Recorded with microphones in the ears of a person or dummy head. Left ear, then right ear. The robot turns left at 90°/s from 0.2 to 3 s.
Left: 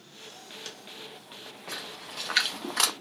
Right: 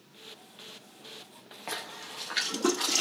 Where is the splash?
25° right (ahead or behind), 0.5 m; by 2.9 s 55° left (ahead or behind), 0.5 m.